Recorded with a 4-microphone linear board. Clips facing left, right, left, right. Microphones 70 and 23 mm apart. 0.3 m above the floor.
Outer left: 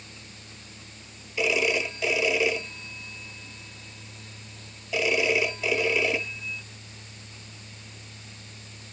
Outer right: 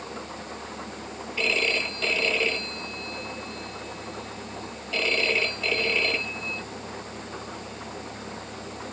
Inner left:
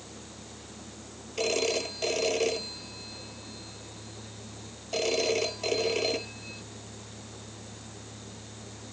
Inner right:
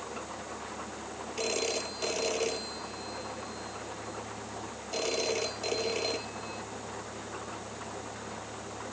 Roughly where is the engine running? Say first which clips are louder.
Outer right 12 dB, inner right 7 dB; right.